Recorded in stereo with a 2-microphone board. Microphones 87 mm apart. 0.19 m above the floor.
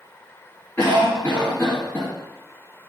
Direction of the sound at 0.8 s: 25° left (ahead or behind).